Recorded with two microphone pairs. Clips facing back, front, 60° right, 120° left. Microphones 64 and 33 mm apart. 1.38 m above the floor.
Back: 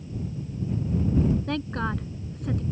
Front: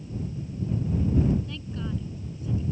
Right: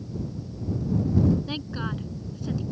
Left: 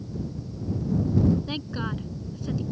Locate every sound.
1.5 s a woman speaking: 150° right